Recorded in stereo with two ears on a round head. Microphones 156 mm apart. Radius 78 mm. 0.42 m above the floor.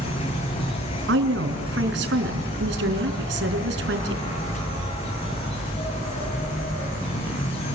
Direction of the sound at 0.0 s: 35° left (ahead or behind).